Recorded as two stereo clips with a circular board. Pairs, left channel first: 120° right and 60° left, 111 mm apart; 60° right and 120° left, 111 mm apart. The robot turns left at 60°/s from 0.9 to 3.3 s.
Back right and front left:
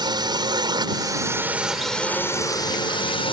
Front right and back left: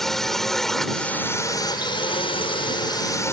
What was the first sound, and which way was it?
A drone, 25° left.